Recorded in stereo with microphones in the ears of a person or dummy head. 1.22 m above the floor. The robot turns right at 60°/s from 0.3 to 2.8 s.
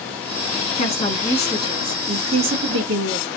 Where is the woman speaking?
130° left, 1.7 m; by 3.3 s 105° right, 1.7 m.